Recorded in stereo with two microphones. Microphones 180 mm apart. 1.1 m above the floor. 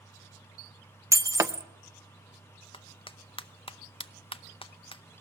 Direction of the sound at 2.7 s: 30° left (ahead or behind).